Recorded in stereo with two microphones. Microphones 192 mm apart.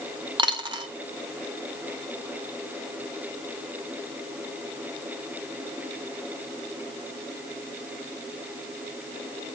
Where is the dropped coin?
25° right (ahead or behind), 1.1 m.